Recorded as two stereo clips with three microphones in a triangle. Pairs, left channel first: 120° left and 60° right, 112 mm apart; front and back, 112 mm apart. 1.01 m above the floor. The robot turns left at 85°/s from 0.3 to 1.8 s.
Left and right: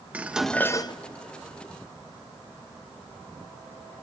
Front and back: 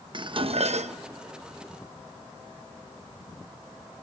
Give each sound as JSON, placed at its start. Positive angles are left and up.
{"t": 0.1, "sound": "dishes clattering", "azimuth_deg": -140, "distance_m": 0.5}